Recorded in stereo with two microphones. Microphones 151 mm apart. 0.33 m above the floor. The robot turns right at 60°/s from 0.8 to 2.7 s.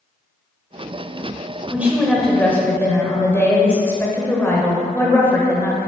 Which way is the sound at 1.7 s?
10° right (ahead or behind).